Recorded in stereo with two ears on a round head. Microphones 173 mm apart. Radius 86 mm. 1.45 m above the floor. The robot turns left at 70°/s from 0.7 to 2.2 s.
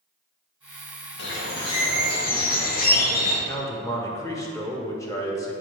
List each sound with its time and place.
1.2 s a bird: 120° left, 1.3 m; by 3.4 s 50° left, 1.3 m
3.5 s a man speaking: 15° left (ahead or behind), 1.2 m